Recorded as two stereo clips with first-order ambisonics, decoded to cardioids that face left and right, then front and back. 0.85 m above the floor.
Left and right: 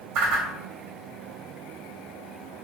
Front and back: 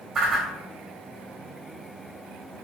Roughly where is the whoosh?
Right.